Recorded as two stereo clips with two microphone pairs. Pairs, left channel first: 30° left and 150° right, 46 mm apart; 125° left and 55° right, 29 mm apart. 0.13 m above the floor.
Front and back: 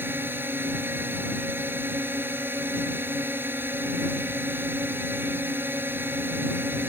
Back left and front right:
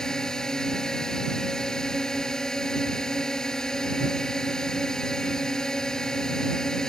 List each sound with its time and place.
0.0 s a drone: 170° right